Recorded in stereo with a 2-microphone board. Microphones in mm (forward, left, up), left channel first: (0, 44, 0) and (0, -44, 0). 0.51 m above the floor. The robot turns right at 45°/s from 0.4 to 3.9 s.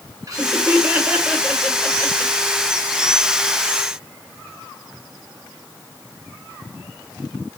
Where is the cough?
I don't hear a cough.